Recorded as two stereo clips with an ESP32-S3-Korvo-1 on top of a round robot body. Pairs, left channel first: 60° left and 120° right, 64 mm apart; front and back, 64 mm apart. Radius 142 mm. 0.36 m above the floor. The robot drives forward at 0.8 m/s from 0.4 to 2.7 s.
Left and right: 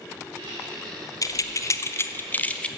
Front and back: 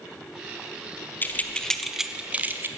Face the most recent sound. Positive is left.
turn(degrees=130)